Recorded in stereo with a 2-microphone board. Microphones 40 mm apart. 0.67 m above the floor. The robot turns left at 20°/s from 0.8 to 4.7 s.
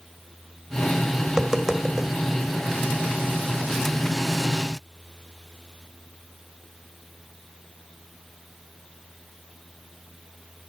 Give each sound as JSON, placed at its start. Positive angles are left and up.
{"t": 1.3, "sound": "tapping", "side_deg": -20, "distance_m": 1.5}